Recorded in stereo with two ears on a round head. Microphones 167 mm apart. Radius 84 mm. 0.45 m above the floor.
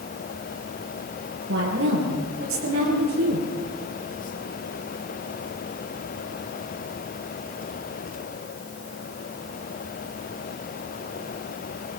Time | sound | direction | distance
1.5 | a woman speaking | 80° right | 9.5 m